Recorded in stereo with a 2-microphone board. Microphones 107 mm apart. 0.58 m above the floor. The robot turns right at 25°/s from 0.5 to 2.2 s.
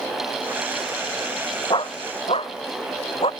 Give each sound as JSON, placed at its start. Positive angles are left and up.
{"t": 1.7, "sound": "a dog barking", "side_deg": 50}